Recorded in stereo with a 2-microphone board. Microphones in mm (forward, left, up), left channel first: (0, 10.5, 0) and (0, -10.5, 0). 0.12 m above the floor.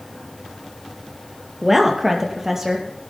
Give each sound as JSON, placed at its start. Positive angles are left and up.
{"t": 1.6, "sound": "a woman speaking", "side_deg": -10, "distance_m": 2.5}